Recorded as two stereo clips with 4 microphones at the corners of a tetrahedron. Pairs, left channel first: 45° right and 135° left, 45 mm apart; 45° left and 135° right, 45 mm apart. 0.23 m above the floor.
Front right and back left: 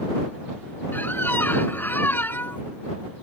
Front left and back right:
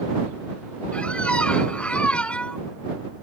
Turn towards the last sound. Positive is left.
turn(degrees=-20)